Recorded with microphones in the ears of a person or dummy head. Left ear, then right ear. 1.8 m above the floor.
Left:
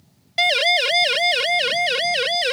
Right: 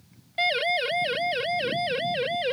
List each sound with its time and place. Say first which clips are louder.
0.4 s a siren: left 7 dB; 50° left (ahead or behind); by 2.5 s 70° left (ahead or behind)